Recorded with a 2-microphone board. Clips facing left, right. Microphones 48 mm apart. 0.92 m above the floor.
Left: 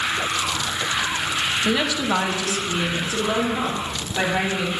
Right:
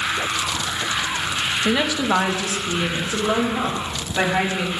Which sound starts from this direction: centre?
A woman speaking, at 1.6 s.